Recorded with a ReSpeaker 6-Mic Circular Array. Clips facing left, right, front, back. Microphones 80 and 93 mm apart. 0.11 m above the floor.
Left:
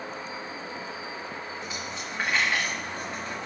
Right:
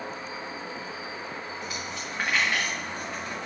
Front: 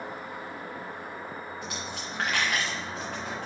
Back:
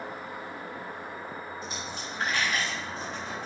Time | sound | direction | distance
1.6 | a dropped coin | 5° left | 4.5 m